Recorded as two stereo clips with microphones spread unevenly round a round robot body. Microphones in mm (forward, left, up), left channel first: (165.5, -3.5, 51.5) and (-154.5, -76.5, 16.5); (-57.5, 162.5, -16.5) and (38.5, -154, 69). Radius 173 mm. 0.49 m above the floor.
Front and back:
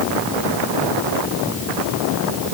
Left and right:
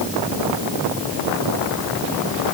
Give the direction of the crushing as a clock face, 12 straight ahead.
No crushing in this recording.